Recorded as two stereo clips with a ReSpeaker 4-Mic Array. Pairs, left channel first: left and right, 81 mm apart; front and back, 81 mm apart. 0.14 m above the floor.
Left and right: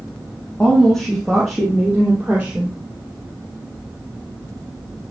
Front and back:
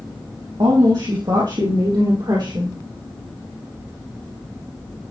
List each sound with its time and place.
0.6 s a woman speaking: 170° left, 3.5 m; by 2.8 s 160° right, 3.5 m